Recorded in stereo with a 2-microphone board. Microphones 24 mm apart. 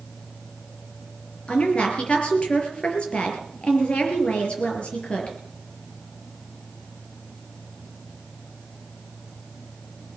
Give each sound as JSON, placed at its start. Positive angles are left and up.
{"t": 1.5, "sound": "a woman speaking", "side_deg": 50, "distance_m": 4.5}